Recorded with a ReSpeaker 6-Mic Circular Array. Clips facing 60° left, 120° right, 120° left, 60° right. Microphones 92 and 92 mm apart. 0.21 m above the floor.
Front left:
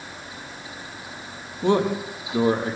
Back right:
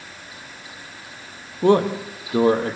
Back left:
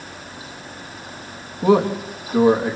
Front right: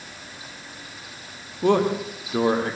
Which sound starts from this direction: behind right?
A man speaking, at 1.6 s.